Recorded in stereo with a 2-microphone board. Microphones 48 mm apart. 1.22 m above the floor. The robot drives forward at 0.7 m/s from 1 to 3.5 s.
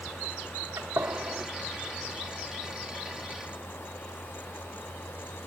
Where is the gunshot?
80° right, 1.9 m; by 1.5 s 75° right (ahead or behind), 2.0 m.